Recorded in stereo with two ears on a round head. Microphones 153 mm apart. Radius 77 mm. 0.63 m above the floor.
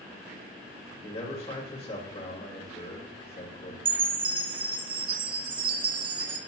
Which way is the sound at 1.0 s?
35° left (ahead or behind).